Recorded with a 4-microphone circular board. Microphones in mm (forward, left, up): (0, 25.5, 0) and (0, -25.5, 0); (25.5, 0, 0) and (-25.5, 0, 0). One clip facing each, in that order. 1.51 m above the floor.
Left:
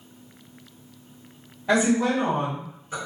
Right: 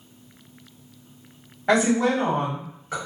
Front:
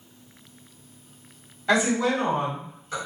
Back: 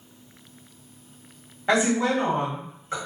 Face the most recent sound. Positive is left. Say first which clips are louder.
# right 1 dB, even
turn(degrees=-115)